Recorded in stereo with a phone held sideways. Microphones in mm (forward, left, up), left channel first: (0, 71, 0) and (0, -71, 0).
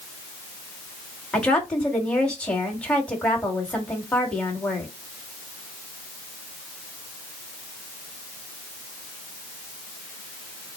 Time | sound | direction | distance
1.3 | a woman speaking | 5° left (ahead or behind) | 1.5 m